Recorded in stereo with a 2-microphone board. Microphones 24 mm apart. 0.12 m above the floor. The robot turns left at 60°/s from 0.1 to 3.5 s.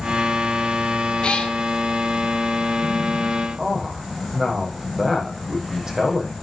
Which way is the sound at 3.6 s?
25° right (ahead or behind).